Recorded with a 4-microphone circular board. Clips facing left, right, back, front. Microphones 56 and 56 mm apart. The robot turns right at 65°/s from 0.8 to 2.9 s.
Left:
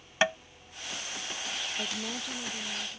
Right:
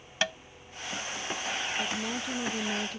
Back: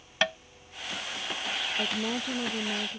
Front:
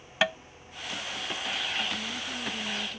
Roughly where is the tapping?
Left.